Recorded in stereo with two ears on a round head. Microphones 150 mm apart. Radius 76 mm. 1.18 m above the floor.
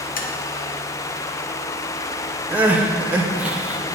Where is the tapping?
55° left (ahead or behind), 0.9 m.